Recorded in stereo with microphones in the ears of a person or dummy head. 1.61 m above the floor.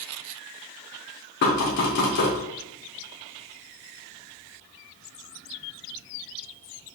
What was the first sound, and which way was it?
Knocking, 55° left (ahead or behind).